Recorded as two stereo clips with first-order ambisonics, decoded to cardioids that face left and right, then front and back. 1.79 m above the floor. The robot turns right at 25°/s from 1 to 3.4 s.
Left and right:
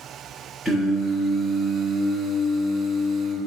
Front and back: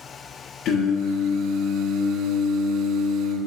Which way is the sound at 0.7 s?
15° right.